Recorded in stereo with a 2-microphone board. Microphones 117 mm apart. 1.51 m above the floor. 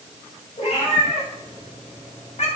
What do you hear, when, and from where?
0.6 s a cat meowing: 80° left, 4 m; by 2.5 s 65° left (ahead or behind), 2 m